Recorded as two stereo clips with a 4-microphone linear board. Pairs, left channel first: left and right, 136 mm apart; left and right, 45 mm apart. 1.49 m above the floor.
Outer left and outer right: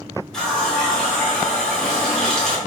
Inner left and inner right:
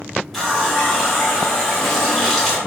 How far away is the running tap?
About 0.7 m.